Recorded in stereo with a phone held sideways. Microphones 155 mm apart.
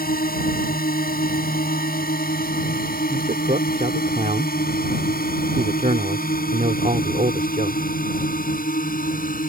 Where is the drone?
75° left (ahead or behind); by 9.5 s 70° left (ahead or behind).